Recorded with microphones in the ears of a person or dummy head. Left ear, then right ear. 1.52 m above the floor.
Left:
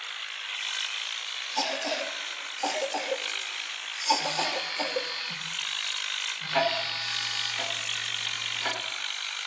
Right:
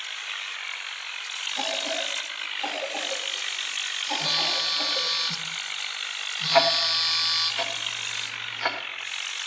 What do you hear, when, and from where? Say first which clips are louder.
1.6 s a cough: even; 70° left (ahead or behind), 2.5 m
4.2 s a phone buzzing: right 5 dB; 85° right, 1.8 m
6.5 s ticking: right 7 dB; 30° right (ahead or behind), 1.6 m